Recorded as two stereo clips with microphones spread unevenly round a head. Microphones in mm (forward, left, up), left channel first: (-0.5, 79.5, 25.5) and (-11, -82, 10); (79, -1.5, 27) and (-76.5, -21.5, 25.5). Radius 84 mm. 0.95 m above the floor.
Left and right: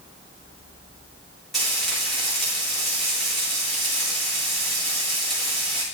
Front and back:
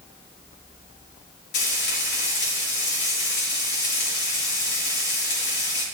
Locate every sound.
1.5 s frying: 5° right, 4 m